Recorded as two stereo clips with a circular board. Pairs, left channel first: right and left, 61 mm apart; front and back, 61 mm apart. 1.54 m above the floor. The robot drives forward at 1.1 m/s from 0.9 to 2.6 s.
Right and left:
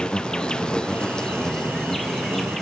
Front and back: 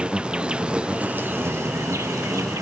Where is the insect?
145° right; by 2.6 s 175° right.